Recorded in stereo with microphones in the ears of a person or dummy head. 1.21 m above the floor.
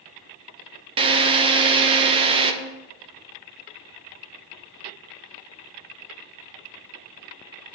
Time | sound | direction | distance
1.0 | a drill | 25° right (ahead or behind) | 1.0 m